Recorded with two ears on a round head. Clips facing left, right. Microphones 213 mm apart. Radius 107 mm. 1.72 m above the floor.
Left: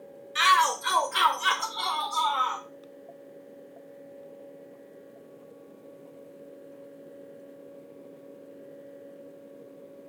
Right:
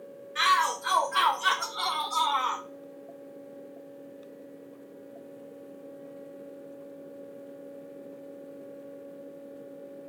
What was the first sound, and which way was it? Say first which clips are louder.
A shout: left 3 dB; 50° left (ahead or behind).